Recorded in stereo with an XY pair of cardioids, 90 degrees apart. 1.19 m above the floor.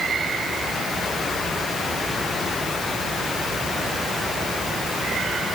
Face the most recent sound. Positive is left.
No sound to turn to.